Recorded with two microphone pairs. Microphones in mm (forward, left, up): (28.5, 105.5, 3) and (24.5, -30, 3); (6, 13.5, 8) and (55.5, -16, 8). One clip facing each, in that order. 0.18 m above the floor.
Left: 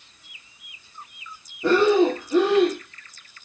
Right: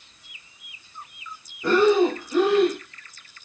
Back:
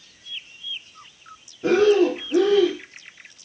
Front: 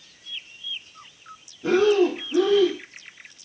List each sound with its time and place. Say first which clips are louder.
1.6 s breathing: left 1 dB, back 2 dB; 150° left, 2.0 m